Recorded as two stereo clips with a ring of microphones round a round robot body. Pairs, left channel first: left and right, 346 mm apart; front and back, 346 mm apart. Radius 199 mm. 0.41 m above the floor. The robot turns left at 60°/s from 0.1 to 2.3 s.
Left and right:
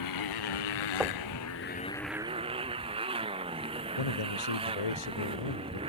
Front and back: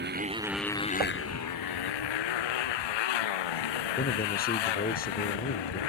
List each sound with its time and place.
0.0 s a motorcycle: 120° left; by 5.9 s 15° right
1.0 s knocking: 175° right; by 1.3 s 165° left
4.0 s a man speaking: 65° left